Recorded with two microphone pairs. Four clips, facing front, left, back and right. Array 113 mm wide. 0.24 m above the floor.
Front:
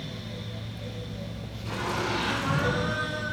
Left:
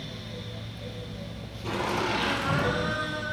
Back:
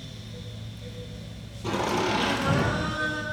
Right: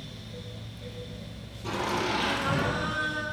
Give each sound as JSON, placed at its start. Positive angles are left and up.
{"t": 1.6, "sound": "laughter", "azimuth_deg": 160, "distance_m": 6.0}